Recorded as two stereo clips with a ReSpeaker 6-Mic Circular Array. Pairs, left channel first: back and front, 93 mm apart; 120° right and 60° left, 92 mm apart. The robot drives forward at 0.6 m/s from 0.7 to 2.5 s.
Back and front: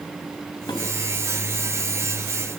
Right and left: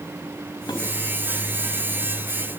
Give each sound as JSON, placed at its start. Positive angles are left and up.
{"t": 0.7, "sound": "dishes clattering", "azimuth_deg": -150, "distance_m": 5.0}